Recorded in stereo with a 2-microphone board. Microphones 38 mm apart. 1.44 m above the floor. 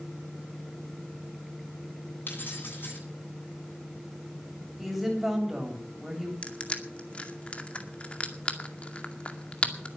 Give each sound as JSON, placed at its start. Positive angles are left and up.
{"t": 2.3, "sound": "keys jangling", "side_deg": 65, "distance_m": 9.5}
{"t": 4.8, "sound": "a woman speaking", "side_deg": -10, "distance_m": 7.5}
{"t": 6.4, "sound": "crushing", "side_deg": 30, "distance_m": 2.0}